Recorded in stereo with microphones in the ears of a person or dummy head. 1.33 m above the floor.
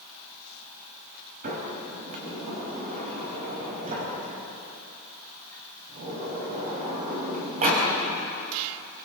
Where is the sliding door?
40° right (ahead or behind), 5 m.